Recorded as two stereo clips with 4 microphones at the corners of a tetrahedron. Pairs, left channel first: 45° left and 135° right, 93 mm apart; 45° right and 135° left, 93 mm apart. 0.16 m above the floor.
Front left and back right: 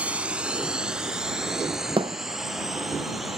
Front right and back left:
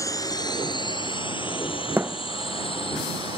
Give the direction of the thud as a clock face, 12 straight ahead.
5 o'clock.